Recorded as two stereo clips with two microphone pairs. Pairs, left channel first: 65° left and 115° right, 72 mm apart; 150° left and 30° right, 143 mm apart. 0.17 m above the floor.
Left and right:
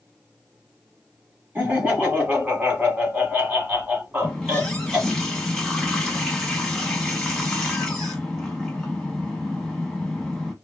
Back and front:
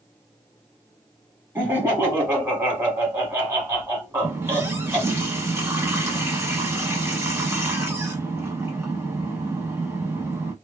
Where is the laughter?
85° right, 1.3 m.